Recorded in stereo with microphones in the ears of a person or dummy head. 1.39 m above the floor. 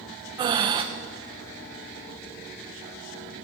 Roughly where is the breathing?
Right.